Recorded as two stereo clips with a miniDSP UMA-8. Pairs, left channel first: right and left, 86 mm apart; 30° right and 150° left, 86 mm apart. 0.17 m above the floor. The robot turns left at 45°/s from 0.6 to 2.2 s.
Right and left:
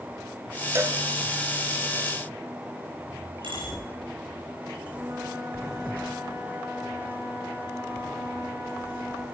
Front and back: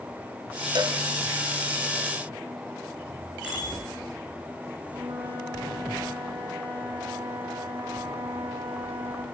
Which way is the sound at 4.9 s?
140° left.